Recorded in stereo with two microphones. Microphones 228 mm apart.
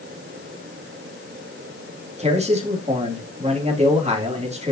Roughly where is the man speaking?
Right.